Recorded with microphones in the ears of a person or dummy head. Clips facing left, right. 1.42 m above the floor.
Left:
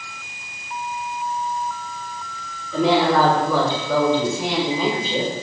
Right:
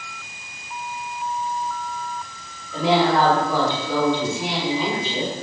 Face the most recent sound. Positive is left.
turn(degrees=45)  # may be behind; listen again after turning